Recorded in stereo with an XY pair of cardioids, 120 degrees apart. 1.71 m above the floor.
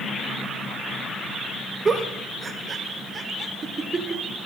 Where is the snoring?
I don't hear snoring.